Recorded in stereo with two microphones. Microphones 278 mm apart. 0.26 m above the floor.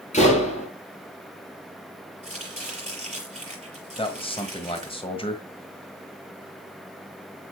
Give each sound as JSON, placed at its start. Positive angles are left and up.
{"t": 0.1, "sound": "a door slam", "side_deg": 25, "distance_m": 4.0}
{"t": 2.2, "sound": "chopping", "side_deg": -25, "distance_m": 6.0}
{"t": 4.0, "sound": "a man speaking", "side_deg": 20, "distance_m": 1.4}